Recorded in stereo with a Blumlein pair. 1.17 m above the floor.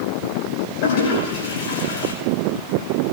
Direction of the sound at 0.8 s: 55° left.